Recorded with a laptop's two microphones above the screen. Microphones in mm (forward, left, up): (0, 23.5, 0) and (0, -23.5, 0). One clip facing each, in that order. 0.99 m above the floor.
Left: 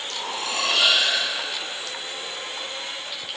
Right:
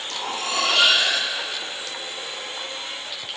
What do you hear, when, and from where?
0.1 s cutlery clinking: 50° right (ahead or behind), 1.5 m